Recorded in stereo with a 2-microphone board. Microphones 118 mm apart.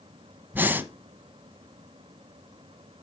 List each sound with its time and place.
0.5 s breathing: 15° right (ahead or behind), 0.8 m